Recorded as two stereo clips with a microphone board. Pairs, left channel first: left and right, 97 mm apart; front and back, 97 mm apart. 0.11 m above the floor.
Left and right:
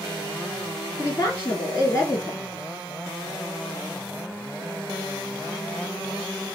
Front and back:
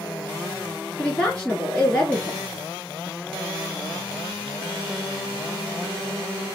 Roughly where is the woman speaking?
Left.